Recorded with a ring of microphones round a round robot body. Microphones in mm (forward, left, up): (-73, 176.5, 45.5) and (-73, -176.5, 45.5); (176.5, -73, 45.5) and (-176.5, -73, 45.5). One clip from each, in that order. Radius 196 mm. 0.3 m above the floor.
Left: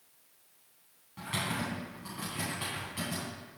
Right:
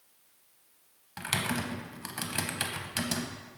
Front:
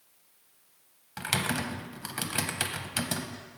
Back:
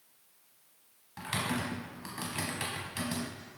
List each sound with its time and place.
1.2 s typing on a keyboard: 55° right, 0.8 m